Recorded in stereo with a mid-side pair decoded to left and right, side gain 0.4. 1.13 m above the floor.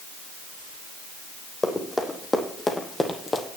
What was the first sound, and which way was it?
Running footsteps, 20° left.